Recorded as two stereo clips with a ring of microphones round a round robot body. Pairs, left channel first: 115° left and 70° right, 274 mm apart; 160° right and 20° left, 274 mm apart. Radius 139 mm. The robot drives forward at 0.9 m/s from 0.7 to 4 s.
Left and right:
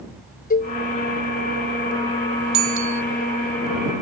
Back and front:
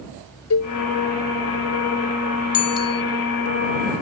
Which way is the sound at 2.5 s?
115° right.